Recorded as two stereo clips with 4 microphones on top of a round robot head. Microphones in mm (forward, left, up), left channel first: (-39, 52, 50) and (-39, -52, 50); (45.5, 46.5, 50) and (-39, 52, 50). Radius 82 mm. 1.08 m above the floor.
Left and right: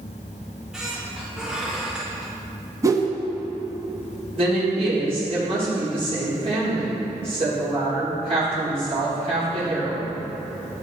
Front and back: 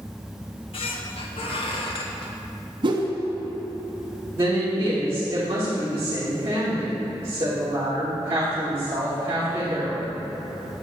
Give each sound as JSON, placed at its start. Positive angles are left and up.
{"t": 0.4, "sound": "a squeak", "azimuth_deg": -5, "distance_m": 1.1}
{"t": 2.8, "sound": "a whoosh", "azimuth_deg": -150, "distance_m": 1.2}
{"t": 4.3, "sound": "a woman speaking", "azimuth_deg": -115, "distance_m": 3.5}